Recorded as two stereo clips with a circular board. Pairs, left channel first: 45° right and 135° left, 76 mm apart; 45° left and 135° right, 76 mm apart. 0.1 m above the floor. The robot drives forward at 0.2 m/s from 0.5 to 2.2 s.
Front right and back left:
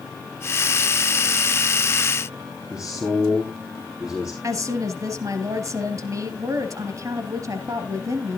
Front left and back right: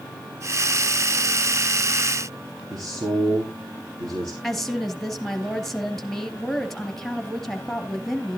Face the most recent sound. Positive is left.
turn(degrees=130)